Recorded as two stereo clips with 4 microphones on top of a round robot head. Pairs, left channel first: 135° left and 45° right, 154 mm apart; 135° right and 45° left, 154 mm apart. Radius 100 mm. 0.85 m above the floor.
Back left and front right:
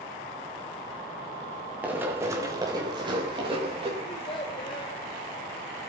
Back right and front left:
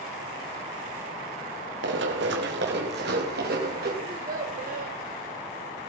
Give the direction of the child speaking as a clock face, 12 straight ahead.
9 o'clock.